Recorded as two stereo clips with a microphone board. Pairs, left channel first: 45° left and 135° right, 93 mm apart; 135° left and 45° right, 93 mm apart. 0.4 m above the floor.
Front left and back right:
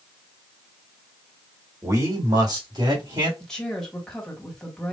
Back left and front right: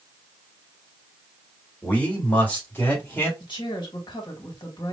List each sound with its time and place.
1.8 s a man speaking: 160° right, 1.7 m; by 3.3 s 155° right, 2.5 m
3.4 s a woman speaking: 130° left, 2.0 m